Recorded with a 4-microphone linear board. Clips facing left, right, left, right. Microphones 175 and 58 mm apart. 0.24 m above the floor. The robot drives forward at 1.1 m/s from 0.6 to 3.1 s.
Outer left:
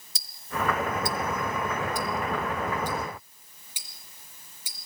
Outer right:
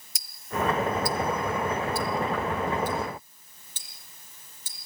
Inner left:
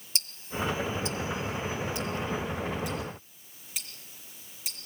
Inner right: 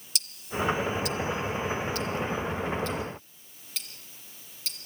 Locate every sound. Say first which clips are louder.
0.1 s ticking: outer right 2 dB, inner right 2 dB; 30° left (ahead or behind), 1.3 m; by 4.8 s 10° left (ahead or behind), 3.5 m